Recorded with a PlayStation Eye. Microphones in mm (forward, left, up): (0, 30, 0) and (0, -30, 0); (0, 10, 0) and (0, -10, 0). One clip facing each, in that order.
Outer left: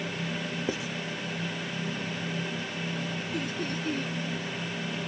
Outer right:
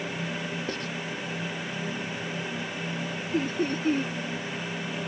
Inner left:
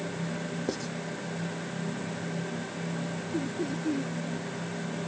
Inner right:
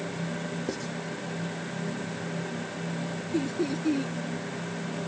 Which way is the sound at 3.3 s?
35° right (ahead or behind).